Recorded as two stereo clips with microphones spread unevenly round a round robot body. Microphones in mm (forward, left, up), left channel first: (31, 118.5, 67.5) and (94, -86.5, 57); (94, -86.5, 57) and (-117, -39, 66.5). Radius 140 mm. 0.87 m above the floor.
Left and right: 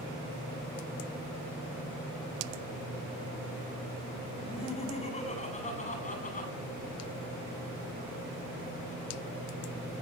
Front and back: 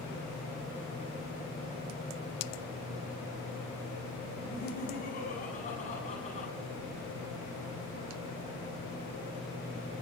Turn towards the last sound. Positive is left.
turn(degrees=55)